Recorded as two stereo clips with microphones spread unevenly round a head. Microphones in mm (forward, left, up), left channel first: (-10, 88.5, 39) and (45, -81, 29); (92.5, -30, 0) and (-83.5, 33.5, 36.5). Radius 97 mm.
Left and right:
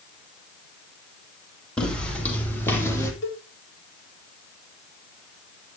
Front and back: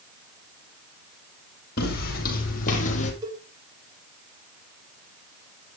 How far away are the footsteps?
About 4.5 m.